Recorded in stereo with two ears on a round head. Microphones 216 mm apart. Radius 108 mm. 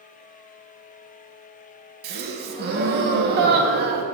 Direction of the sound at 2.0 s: 40° right (ahead or behind).